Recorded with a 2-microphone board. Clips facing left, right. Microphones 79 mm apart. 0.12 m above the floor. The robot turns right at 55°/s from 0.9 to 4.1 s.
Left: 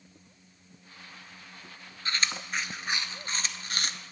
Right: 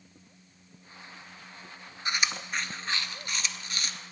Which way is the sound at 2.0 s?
20° right (ahead or behind).